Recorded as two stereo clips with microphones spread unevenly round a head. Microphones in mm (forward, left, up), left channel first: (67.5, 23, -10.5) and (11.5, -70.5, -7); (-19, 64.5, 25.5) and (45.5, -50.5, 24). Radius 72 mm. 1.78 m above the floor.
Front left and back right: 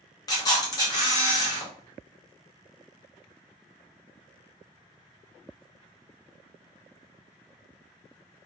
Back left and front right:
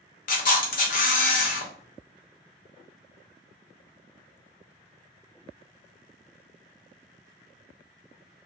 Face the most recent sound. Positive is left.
turn(degrees=115)